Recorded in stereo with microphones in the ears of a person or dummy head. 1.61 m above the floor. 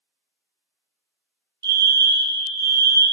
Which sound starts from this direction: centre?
A fire alarm, at 1.6 s.